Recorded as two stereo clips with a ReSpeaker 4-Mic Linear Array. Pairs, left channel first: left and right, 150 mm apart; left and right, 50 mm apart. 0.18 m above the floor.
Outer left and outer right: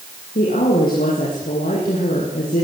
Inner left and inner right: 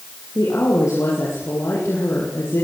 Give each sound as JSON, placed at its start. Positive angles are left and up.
{"t": 0.3, "sound": "a woman speaking", "side_deg": 80, "distance_m": 7.0}